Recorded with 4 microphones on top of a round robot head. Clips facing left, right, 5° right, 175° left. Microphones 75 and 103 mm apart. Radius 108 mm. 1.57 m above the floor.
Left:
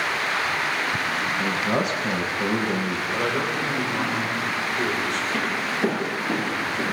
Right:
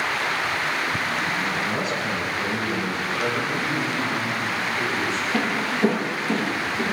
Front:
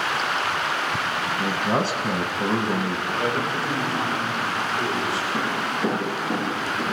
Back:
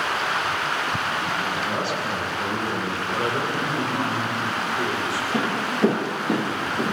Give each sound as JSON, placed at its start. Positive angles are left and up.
{"t": 1.4, "sound": "a man speaking", "azimuth_deg": 45, "distance_m": 2.5}
{"t": 3.1, "sound": "a man speaking", "azimuth_deg": 120, "distance_m": 7.5}
{"t": 5.3, "sound": "footsteps", "azimuth_deg": 180, "distance_m": 3.0}